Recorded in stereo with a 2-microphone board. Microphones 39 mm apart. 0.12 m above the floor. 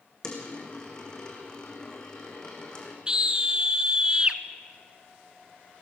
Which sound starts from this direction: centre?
A dropped coin, at 0.2 s.